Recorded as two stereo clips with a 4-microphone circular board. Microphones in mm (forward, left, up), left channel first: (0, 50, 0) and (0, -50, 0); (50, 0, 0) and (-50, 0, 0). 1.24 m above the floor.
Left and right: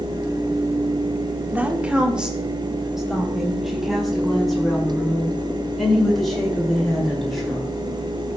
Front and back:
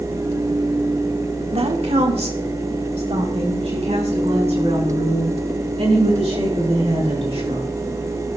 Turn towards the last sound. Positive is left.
turn(degrees=175)